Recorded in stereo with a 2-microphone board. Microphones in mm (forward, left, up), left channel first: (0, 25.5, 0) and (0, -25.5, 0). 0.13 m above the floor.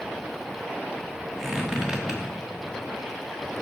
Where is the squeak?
10° right (ahead or behind), 1.6 m.